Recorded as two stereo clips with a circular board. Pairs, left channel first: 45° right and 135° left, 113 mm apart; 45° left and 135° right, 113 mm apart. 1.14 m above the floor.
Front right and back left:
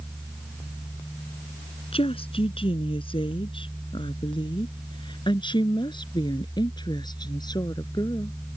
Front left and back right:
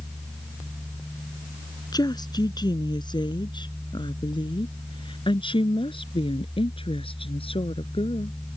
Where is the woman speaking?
10° right; by 8.4 s 10° left.